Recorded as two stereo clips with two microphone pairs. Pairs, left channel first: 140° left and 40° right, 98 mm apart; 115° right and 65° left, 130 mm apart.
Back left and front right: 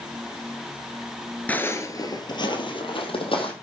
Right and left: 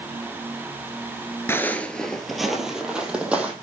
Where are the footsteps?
160° right, 1.3 m; by 3.5 s 145° left, 3.5 m.